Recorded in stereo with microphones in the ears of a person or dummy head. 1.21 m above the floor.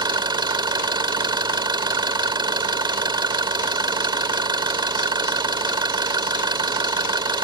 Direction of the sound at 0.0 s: 25° right (ahead or behind).